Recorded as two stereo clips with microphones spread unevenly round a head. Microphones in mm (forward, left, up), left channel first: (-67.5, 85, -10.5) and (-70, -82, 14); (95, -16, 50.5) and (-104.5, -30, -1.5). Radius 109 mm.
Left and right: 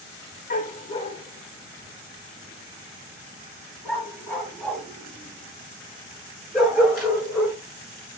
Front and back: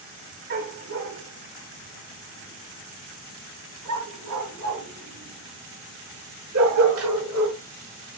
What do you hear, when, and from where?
0.5 s a dog barking: 130° left, 1.4 m; by 7.6 s 175° right, 6.5 m